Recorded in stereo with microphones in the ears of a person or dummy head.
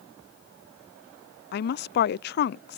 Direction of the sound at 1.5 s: 55° left (ahead or behind).